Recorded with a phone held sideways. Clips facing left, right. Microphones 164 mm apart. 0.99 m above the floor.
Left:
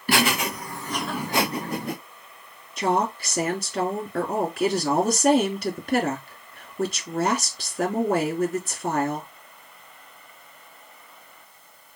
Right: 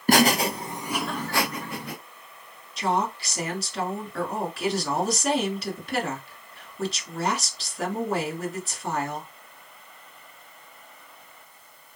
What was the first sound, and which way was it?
Laughter, 45° right (ahead or behind).